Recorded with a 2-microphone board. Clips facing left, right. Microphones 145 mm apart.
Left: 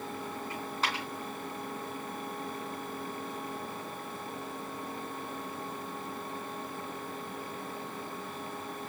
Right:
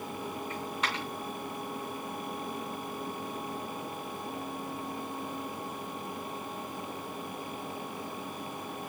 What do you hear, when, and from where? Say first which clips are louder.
0.5 s a dropped coin: left 1 dB; 35° left (ahead or behind), 2.5 m